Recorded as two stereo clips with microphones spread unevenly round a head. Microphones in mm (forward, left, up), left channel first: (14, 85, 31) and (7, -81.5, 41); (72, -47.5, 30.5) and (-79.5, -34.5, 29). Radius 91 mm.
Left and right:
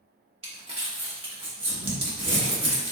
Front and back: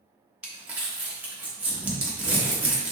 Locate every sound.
0.4 s crumpling: 110° right, 1.1 m